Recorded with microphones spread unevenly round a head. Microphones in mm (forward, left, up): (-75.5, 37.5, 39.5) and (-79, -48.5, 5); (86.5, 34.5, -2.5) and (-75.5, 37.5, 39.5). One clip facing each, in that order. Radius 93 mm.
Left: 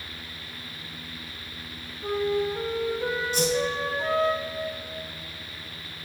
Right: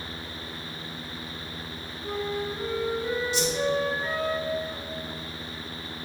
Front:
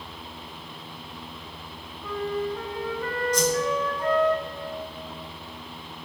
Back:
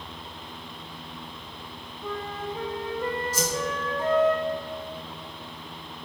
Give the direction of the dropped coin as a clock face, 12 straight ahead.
I don't hear a dropped coin.